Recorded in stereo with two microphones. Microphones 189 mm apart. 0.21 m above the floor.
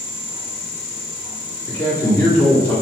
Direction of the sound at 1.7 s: 10° left (ahead or behind).